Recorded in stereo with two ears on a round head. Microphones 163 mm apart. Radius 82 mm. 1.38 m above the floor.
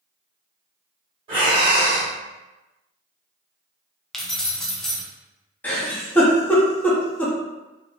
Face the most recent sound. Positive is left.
turn(degrees=10)  # may be behind; listen again after turning